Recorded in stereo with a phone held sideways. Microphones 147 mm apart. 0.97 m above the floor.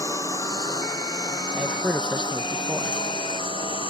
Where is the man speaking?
10° right (ahead or behind).